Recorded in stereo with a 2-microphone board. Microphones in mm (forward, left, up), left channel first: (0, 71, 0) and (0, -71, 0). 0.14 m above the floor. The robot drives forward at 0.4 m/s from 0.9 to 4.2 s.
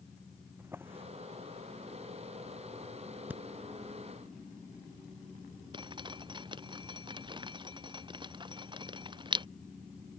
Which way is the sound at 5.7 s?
30° right (ahead or behind).